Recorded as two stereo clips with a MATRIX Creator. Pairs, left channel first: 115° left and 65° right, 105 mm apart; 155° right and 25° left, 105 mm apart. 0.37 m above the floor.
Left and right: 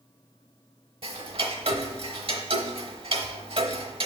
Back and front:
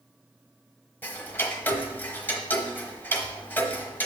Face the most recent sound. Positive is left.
turn(degrees=-85)